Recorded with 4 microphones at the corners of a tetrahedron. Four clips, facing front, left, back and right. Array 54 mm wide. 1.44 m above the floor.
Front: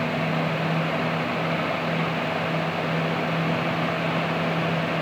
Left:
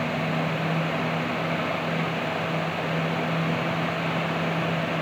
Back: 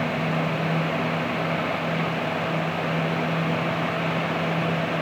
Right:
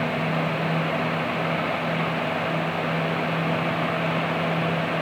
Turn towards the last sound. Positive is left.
No sound to turn to.